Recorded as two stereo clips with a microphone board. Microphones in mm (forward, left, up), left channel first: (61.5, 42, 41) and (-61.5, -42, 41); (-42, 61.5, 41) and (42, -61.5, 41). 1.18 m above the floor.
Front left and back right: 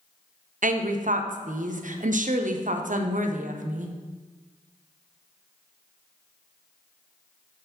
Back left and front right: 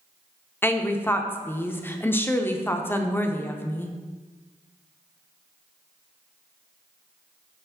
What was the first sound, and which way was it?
A woman speaking, 160° right.